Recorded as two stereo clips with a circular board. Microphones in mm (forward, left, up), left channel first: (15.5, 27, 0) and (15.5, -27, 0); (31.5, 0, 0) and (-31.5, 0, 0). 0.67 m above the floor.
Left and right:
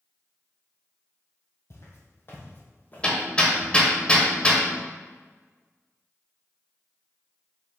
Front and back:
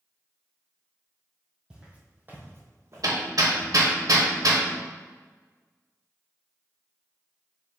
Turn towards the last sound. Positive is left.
turn(degrees=160)